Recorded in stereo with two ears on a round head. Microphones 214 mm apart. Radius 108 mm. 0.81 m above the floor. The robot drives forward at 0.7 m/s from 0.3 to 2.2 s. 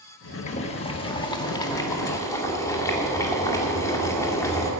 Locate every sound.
0.5 s boiling: 30° left (ahead or behind), 1.0 m; by 4.7 s 15° left (ahead or behind), 2.0 m